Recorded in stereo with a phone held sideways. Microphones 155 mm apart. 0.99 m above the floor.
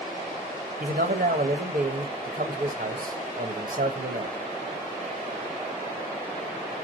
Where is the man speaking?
65° right (ahead or behind), 1.4 m.